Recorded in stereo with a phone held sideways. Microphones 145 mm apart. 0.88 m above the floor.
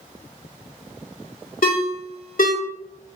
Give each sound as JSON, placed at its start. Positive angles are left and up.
{"t": 1.6, "sound": "a ringtone", "side_deg": 70, "distance_m": 0.9}